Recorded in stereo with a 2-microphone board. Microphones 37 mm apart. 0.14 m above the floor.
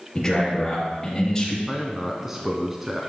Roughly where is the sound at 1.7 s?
Centre.